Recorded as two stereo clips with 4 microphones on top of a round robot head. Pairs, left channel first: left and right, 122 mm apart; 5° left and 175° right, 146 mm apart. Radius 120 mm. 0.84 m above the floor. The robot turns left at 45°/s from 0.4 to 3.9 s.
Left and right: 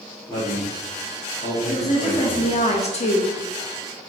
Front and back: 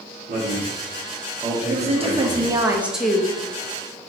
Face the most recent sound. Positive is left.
turn(degrees=55)